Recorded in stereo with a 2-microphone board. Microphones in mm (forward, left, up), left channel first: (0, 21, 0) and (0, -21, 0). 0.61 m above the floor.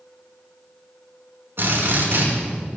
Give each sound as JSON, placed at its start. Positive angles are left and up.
{"t": 1.6, "sound": "a drill", "side_deg": -60, "distance_m": 5.5}